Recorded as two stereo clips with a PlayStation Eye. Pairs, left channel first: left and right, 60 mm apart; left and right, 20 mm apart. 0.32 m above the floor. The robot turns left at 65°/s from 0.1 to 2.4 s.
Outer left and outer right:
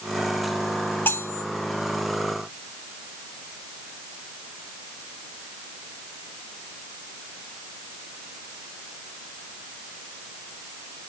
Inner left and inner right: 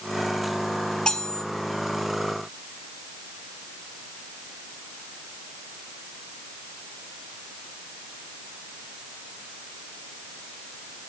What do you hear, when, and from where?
1.1 s cutlery clinking: 40° left (ahead or behind), 1.0 m; by 1.4 s 55° left (ahead or behind), 1.0 m